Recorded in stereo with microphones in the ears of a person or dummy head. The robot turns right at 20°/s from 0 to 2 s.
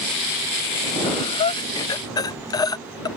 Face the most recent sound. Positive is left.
turn(degrees=20)  # may be behind; listen again after turning